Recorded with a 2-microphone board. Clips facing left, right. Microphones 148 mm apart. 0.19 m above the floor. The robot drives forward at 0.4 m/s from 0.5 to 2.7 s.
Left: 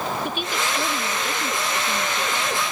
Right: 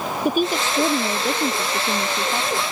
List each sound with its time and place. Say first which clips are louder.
0.2 s a woman speaking: right 7 dB; 45° right (ahead or behind); by 2.6 s 40° right (ahead or behind)